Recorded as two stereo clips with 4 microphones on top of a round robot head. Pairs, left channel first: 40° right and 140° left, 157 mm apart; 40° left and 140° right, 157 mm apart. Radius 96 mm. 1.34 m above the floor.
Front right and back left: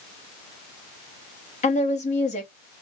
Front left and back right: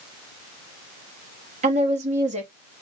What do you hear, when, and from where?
1.6 s a woman speaking: 90° right, 1.9 m